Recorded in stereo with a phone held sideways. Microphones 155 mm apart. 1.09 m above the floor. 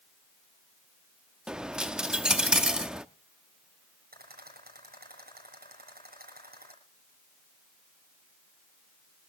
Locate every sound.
1.5 s a dropped coin: 5° right (ahead or behind), 0.6 m
4.1 s a rattle: 85° right, 8 m